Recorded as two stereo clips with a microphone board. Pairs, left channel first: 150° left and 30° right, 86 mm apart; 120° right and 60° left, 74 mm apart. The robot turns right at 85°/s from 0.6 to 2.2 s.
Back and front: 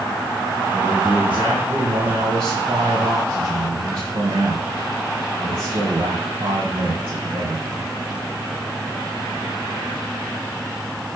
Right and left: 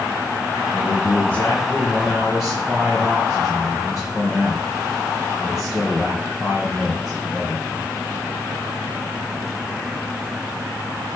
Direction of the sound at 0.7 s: 150° right.